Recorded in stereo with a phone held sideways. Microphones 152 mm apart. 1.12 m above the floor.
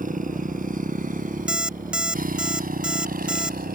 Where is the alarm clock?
5° right (ahead or behind).